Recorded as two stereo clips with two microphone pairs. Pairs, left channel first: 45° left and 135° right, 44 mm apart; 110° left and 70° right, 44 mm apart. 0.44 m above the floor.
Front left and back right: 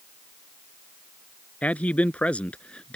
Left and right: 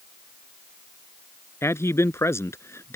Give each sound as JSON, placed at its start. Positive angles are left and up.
{"t": 1.6, "sound": "a man speaking", "azimuth_deg": 105}